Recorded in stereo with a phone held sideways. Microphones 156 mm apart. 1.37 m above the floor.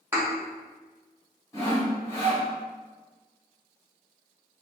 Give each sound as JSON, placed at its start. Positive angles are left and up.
{"t": 0.1, "sound": "a thud", "side_deg": -15, "distance_m": 0.9}
{"t": 1.5, "sound": "sawing", "side_deg": 20, "distance_m": 1.6}